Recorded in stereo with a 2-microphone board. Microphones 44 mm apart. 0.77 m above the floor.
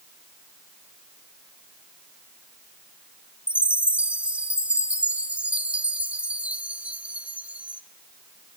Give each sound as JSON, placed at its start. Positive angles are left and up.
{"t": 3.5, "sound": "a chime", "side_deg": -30, "distance_m": 0.8}